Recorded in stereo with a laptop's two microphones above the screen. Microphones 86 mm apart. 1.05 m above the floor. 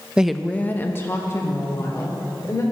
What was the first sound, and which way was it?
A woman speaking, 10° right (ahead or behind).